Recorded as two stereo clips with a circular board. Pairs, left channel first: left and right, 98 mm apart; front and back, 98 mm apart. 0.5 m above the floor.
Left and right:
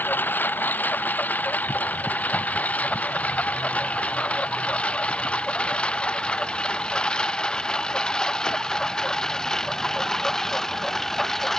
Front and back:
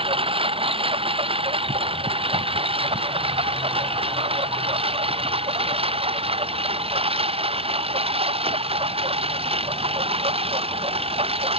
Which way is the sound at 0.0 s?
160° left.